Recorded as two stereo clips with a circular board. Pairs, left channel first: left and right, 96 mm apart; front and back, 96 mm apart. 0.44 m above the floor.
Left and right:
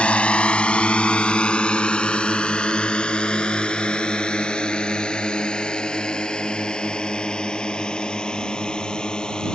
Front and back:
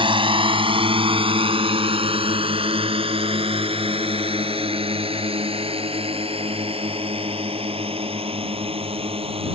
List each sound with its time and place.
0.0 s a drone: 165° left; by 9.6 s 170° left